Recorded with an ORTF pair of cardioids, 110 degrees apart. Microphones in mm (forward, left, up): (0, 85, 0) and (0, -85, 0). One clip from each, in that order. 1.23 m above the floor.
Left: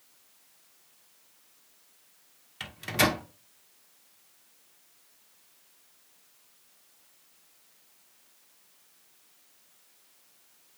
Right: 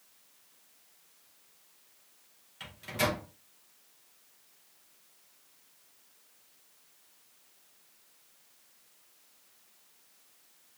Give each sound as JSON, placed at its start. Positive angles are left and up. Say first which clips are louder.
{"t": 2.6, "sound": "a microwave", "louder": "left 5 dB", "azimuth_deg": 40, "distance_m": 0.7}